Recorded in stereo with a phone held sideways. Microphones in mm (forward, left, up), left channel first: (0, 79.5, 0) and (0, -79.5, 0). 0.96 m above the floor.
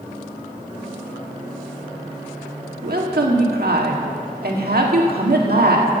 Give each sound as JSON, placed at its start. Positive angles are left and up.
{"t": 2.8, "sound": "a woman speaking", "side_deg": -80, "distance_m": 1.6}